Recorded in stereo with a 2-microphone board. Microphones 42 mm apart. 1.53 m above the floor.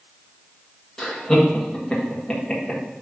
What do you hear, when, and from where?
1.0 s laughter: 10° left (ahead or behind), 1.3 m